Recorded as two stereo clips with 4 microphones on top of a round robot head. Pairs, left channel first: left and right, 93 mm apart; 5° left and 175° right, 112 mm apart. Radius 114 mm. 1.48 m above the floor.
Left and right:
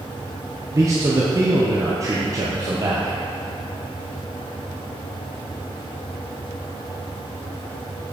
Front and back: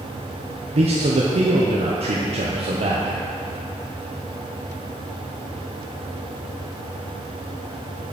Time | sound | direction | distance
0.7 | a man speaking | 150° right | 1.0 m